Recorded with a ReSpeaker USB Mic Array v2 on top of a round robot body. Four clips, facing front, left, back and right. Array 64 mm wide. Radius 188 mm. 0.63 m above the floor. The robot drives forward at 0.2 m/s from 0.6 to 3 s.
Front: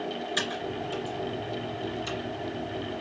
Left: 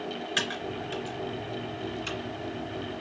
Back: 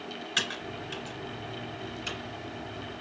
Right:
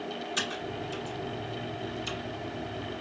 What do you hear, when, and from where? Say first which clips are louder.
0.4 s typing on a keyboard: left 4 dB, back 1 dB; 125° left, 3 m; by 2.2 s 130° left, 3.5 m